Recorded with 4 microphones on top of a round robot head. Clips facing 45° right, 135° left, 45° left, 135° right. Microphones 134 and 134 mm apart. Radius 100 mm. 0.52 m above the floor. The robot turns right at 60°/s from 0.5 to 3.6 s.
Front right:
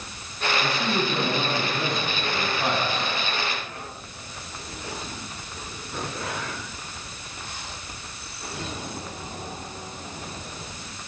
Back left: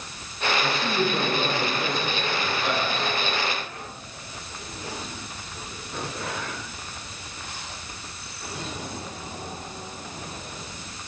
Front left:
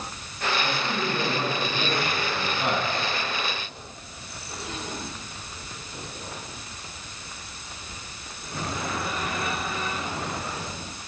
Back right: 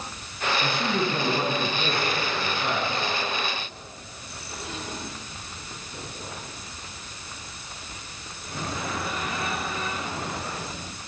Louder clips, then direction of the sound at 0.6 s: Back left 1 dB, back right 2 dB; 110° right.